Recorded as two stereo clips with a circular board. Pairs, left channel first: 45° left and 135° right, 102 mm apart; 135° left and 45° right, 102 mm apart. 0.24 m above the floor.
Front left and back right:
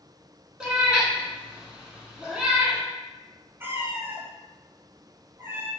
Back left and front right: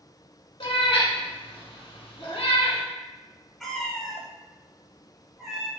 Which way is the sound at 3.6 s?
140° right.